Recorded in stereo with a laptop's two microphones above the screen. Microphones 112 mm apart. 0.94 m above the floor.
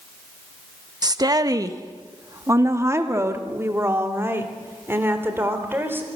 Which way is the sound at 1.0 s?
35° right (ahead or behind).